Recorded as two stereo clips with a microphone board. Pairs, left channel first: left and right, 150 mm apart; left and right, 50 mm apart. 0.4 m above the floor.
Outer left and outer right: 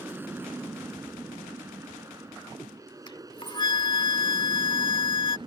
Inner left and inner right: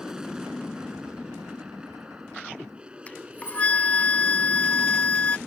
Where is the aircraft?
15° right (ahead or behind); by 5.5 s 30° right (ahead or behind).